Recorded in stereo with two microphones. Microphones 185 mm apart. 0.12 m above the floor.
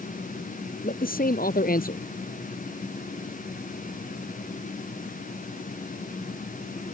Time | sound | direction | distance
0.8 | a man speaking | 55° left (ahead or behind) | ?